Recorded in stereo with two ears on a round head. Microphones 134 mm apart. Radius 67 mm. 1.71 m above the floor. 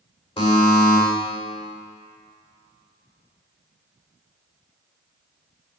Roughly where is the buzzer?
Left.